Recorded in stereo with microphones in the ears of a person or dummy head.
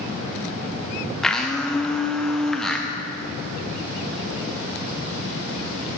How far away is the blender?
About 0.8 m.